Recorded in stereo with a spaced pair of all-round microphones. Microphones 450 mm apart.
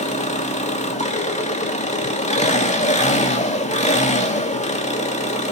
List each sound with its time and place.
0.0 s an engine running: 15° left (ahead or behind), 2 m